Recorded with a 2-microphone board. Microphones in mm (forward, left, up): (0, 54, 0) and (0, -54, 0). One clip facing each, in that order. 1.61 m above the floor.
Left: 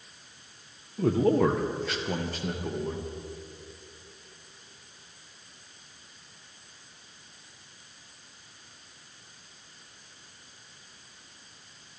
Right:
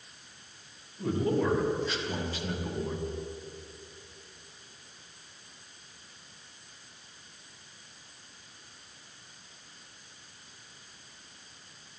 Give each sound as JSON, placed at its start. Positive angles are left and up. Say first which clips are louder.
{"t": 1.0, "sound": "a man speaking", "louder": "left 5 dB", "side_deg": 70, "distance_m": 1.6}